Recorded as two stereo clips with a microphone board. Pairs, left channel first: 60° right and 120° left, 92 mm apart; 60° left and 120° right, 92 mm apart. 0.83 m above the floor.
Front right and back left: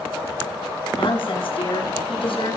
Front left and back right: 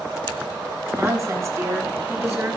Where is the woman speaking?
60° right, 8 m.